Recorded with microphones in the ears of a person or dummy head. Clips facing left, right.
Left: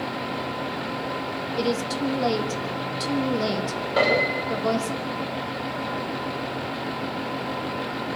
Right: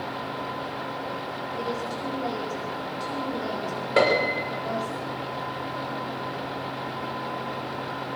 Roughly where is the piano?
Right.